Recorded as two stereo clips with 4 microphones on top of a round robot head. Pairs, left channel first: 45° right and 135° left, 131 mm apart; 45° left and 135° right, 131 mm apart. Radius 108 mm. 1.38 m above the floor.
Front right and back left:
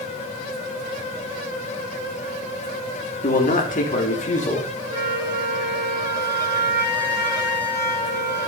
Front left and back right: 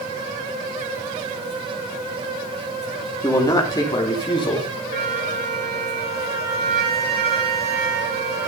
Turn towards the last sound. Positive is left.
turn(degrees=-165)